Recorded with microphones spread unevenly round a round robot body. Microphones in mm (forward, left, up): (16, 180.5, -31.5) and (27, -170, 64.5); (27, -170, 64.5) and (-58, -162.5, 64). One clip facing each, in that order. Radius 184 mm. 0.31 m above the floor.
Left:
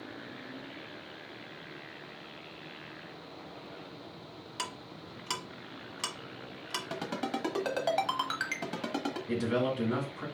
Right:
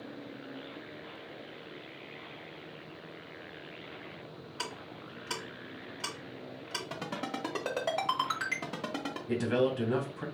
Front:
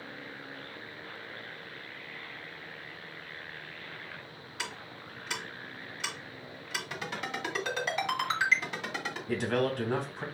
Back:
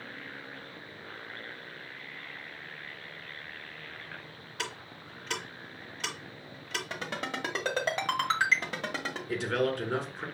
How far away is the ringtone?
About 1.2 m.